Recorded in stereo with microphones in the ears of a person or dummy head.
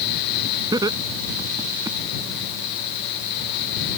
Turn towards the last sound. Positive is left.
turn(degrees=-20)  # may be behind; listen again after turning